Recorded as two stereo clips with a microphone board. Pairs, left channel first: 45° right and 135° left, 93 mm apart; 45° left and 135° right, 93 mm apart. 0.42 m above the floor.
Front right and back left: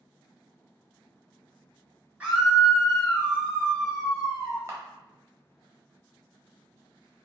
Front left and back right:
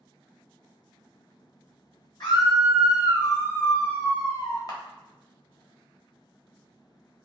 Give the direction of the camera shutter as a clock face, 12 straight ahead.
9 o'clock.